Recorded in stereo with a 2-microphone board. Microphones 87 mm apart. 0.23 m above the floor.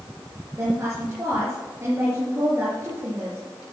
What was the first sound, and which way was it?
A woman speaking, 35° right (ahead or behind).